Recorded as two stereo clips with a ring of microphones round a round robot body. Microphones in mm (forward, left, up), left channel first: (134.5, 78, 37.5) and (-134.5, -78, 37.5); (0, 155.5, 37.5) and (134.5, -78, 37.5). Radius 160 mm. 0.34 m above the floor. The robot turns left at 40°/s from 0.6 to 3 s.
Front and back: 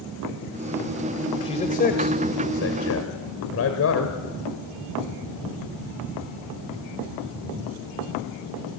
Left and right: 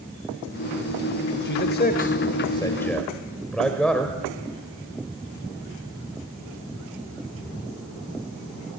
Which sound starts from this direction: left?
A man speaking, at 1.4 s.